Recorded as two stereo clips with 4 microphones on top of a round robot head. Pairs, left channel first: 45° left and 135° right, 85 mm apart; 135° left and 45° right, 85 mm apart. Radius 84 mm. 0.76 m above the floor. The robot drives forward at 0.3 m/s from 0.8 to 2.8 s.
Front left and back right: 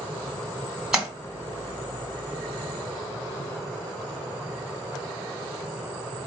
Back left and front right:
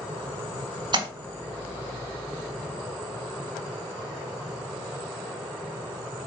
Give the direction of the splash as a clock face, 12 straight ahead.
2 o'clock.